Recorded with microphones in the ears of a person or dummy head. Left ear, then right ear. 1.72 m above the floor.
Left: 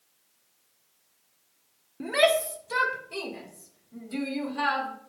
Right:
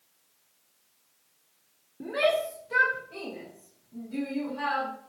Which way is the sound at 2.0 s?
65° left (ahead or behind).